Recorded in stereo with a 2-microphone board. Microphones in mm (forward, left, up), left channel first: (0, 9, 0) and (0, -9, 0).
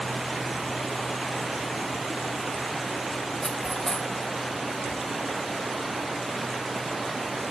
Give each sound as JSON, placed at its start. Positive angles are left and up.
{"t": 3.4, "sound": "cutlery clinking", "side_deg": 40, "distance_m": 0.7}